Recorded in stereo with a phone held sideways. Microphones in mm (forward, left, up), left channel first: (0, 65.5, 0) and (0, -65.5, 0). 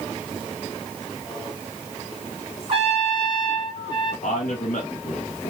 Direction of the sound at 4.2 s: 80° left.